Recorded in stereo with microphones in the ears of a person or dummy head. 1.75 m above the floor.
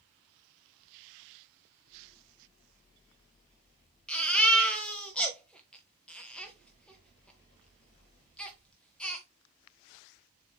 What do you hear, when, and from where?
4.1 s a baby crying: 10° left (ahead or behind), 1.5 m